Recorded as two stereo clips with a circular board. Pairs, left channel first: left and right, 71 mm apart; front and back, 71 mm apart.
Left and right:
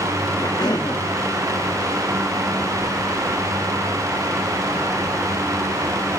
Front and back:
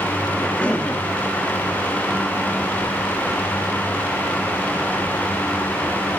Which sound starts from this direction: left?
A cough, at 0.4 s.